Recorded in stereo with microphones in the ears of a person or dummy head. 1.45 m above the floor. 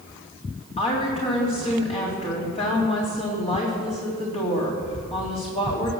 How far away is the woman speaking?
About 3.5 m.